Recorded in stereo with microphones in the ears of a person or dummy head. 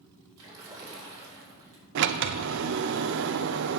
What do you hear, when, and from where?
0.4 s a splash: 20° right (ahead or behind), 3 m
1.9 s a sliding door: 70° right (ahead or behind), 0.6 m